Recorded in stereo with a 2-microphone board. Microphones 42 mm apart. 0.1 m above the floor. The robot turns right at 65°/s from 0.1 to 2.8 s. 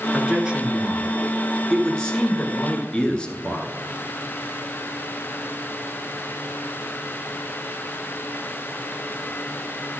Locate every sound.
0.1 s a man speaking: 25° right (ahead or behind), 1.2 m; by 3.7 s 25° left (ahead or behind), 1.2 m